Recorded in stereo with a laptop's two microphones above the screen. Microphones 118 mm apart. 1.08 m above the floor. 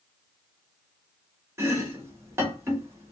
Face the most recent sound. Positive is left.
turn(degrees=-20)  # may be behind; listen again after turning